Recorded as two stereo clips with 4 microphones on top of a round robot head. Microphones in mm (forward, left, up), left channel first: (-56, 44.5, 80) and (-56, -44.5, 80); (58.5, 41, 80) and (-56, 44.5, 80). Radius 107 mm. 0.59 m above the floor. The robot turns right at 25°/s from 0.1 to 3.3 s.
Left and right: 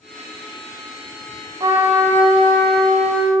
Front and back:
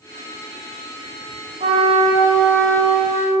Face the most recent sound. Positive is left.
turn(degrees=-90)